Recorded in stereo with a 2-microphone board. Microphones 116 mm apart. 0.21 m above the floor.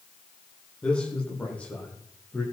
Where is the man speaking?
10° left (ahead or behind), 10 m; by 2.4 s 15° left (ahead or behind), 12 m.